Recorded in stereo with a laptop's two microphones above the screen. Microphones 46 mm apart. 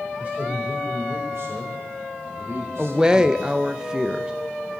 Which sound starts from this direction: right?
A man speaking, at 0.2 s.